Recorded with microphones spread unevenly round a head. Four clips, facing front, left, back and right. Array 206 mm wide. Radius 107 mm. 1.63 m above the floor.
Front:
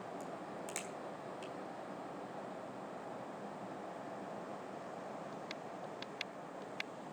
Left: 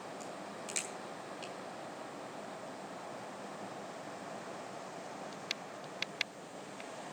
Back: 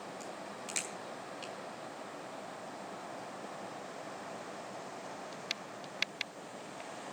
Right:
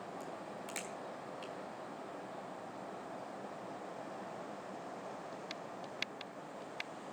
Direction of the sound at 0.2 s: 50° right.